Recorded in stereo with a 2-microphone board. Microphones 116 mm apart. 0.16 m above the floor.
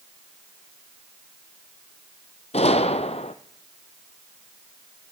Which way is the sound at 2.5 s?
65° left (ahead or behind).